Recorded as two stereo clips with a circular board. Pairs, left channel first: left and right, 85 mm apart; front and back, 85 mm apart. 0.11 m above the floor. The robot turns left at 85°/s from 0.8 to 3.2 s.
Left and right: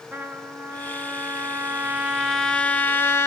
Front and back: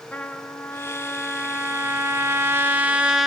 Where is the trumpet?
55° right, 0.8 m; by 3.3 s 100° left, 0.8 m.